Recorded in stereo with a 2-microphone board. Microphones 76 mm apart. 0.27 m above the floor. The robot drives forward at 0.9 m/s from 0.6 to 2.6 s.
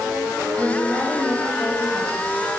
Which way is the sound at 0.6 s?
15° left (ahead or behind).